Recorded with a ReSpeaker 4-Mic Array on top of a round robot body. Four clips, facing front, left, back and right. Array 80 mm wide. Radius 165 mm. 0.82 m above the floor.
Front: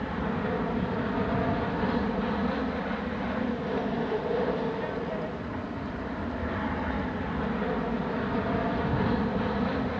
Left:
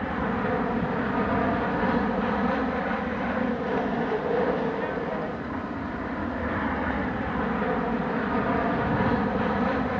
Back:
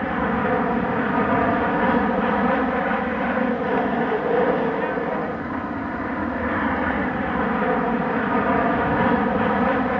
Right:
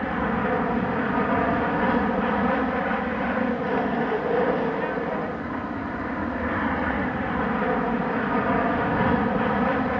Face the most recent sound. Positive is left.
turn(degrees=-165)